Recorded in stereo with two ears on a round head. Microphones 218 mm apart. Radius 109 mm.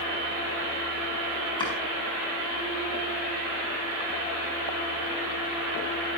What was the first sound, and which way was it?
Chopping, 20° left (ahead or behind).